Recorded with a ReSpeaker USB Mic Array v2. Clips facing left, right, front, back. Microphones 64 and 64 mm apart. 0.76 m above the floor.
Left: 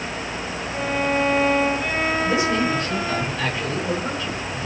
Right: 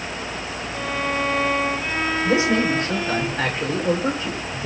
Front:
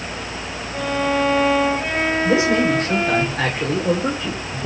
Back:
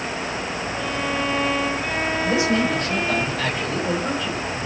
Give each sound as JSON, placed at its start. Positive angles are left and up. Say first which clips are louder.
{"t": 0.7, "sound": "a violin", "louder": "left 3 dB, front 7 dB", "azimuth_deg": 20, "distance_m": 4.5}
{"t": 2.2, "sound": "a man speaking", "louder": "right 5 dB, front 3 dB", "azimuth_deg": -35, "distance_m": 3.0}